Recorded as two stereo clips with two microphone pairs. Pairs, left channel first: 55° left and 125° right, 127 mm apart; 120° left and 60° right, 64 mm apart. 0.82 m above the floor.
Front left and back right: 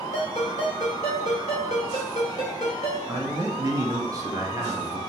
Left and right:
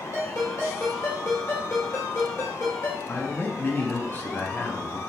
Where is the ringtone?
80° left, 2.0 m.